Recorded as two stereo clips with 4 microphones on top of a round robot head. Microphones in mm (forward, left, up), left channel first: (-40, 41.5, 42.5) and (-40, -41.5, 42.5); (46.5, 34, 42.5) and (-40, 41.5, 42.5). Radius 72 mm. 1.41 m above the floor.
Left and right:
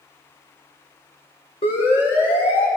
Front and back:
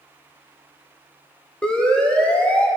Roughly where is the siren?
Left.